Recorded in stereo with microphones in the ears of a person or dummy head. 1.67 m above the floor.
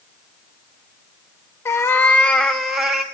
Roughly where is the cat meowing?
Centre.